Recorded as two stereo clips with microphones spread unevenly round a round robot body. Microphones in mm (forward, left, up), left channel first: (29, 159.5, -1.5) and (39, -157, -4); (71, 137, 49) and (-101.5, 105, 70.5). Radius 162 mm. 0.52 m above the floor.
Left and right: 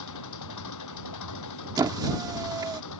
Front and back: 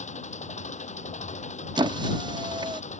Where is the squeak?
140° right.